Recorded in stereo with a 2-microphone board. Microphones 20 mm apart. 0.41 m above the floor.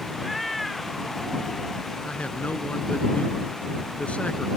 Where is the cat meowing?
Centre (ahead or behind).